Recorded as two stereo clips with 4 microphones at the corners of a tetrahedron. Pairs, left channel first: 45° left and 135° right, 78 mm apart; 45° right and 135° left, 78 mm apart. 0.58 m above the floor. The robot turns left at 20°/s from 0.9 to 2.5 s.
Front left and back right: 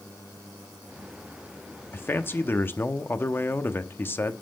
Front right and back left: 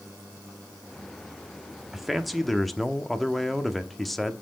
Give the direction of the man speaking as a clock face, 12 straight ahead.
10 o'clock.